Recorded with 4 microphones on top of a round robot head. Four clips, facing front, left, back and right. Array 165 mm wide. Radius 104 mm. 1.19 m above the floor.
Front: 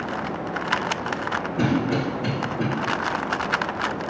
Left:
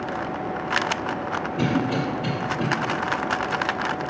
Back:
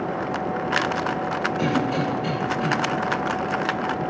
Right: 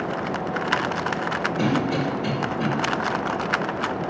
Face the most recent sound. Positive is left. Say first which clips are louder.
# even, front 2 dB
turn(degrees=20)